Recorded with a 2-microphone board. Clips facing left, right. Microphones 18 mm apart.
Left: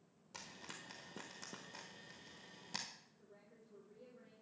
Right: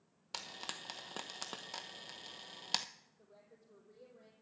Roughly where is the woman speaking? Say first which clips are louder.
Right 1 dB; right.